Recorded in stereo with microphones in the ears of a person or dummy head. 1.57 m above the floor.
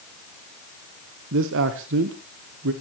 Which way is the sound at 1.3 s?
65° right (ahead or behind).